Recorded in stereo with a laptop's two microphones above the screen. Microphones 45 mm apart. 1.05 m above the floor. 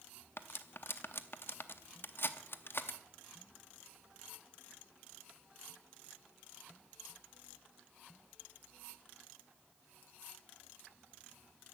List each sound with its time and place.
0.4 s cutlery clinking: 55° left (ahead or behind), 0.7 m